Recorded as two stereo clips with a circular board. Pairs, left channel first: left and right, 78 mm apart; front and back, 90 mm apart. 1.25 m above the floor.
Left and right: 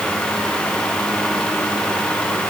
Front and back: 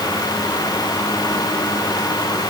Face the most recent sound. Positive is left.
No sound to turn to.